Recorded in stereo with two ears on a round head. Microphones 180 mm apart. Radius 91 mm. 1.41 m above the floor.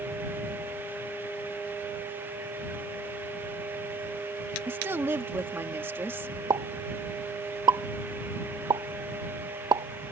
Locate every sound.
4.7 s a woman speaking: 10° right (ahead or behind)
6.5 s a pop: 20° right (ahead or behind)